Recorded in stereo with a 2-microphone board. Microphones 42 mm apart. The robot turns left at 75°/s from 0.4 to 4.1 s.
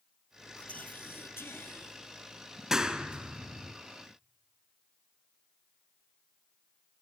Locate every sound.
0.6 s whispering: 155° left, 2.5 m; by 1.9 s 50° left, 2.5 m
2.7 s a clap: 15° right (ahead or behind), 1.4 m; by 3.7 s 25° right (ahead or behind), 1.4 m